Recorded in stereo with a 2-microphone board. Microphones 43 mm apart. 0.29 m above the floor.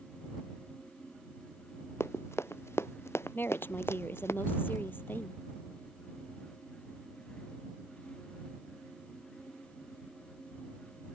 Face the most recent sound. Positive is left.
turn(degrees=50)  # may be behind; listen again after turning